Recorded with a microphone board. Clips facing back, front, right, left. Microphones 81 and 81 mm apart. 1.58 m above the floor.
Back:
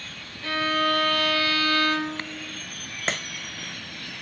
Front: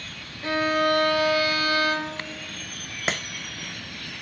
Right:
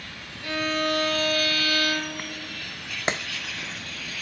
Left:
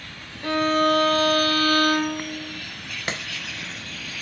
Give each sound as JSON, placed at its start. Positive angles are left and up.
{"t": 0.4, "sound": "a violin", "azimuth_deg": 65, "distance_m": 0.6}
{"t": 3.1, "sound": "a clap", "azimuth_deg": -75, "distance_m": 0.7}